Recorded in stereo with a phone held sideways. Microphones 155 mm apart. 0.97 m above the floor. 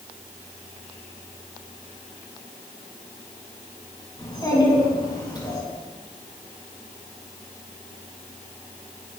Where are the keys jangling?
I don't hear keys jangling.